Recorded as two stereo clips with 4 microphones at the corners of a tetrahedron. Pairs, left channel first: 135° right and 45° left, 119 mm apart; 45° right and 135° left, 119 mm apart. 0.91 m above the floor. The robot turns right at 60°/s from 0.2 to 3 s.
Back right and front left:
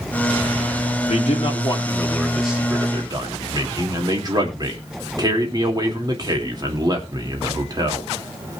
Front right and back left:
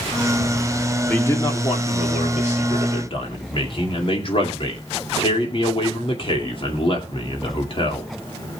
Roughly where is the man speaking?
Behind right.